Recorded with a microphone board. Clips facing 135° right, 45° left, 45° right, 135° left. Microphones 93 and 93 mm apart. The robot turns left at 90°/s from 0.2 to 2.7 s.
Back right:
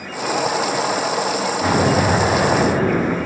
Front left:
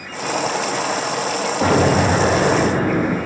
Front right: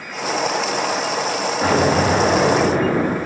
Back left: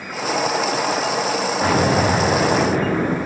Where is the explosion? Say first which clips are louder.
Front left 2 dB, front right 1 dB; 45° left, 6.5 m; by 3.2 s 50° right, 6.5 m.